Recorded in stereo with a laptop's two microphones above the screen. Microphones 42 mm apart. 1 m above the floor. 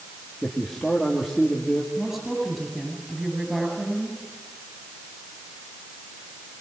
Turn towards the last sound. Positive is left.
turn(degrees=-10)  # may be behind; listen again after turning